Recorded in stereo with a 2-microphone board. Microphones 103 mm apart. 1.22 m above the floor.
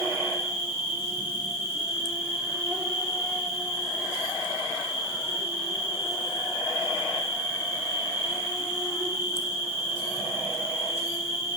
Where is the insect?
25° right (ahead or behind), 4 m.